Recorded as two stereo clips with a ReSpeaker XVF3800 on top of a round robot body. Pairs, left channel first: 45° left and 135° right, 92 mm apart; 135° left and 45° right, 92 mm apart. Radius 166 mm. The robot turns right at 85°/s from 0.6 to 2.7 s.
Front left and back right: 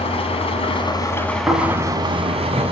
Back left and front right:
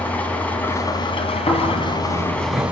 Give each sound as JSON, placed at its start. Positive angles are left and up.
{"t": 0.0, "sound": "an engine running", "azimuth_deg": 60, "distance_m": 3.0}
{"t": 1.5, "sound": "snoring", "azimuth_deg": 145, "distance_m": 7.5}